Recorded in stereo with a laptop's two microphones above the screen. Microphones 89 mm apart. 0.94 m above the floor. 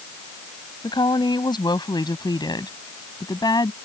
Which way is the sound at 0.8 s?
60° left (ahead or behind).